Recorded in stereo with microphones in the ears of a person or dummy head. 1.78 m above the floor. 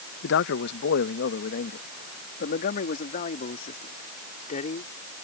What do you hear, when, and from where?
0.2 s a man speaking: 60° left (ahead or behind); by 4.9 s 30° left (ahead or behind)